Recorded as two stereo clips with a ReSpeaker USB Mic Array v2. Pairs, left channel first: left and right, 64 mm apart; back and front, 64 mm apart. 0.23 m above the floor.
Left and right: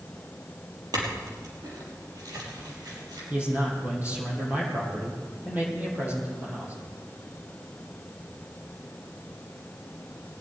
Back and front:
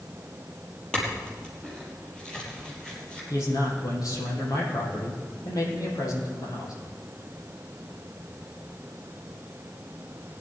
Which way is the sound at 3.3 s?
155° right.